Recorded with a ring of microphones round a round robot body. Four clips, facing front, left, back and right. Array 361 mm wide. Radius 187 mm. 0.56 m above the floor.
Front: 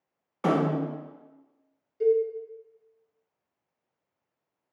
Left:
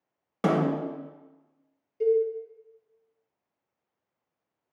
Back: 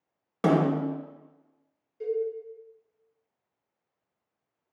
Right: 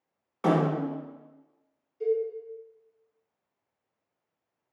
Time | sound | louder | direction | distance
0.4 | a snare drum | even, back 2 dB | 135° left | 0.7 m
2.0 | a cowbell | left 4 dB, front 7 dB | 60° left | 0.7 m